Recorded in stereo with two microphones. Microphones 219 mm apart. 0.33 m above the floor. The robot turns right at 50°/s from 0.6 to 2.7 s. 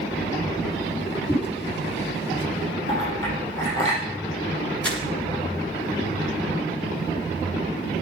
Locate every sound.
1.3 s a whoosh: 15° left (ahead or behind), 6 m; by 1.4 s 10° left (ahead or behind), 6 m
2.9 s a clink: 60° right (ahead or behind), 6.5 m
4.8 s crumpling: 5° left (ahead or behind), 2.5 m